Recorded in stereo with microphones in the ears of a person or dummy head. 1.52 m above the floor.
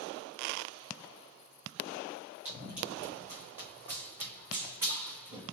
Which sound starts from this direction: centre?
Running footsteps, at 2.5 s.